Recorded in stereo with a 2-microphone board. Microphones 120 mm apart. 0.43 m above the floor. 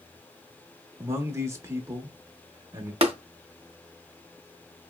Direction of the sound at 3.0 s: 50° right (ahead or behind).